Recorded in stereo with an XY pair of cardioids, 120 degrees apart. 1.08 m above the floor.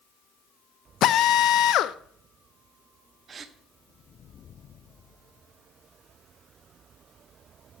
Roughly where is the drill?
Ahead left.